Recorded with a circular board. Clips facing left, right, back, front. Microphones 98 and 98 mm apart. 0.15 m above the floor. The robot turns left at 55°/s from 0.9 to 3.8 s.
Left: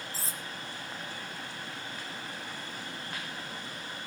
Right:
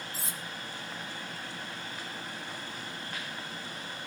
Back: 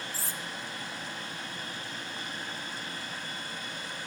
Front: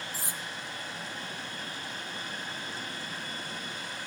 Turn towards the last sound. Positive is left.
turn(degrees=-95)